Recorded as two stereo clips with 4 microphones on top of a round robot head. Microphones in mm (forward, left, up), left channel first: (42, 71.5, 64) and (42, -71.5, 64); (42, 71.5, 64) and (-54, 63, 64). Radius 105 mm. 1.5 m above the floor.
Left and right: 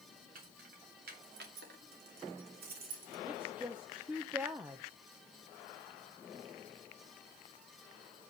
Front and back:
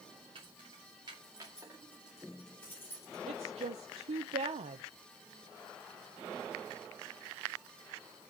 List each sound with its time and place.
0.3 s keys jangling: 125° right, 3 m; by 3.2 s 65° right, 2.5 m
3.3 s a woman speaking: 170° right, 0.7 m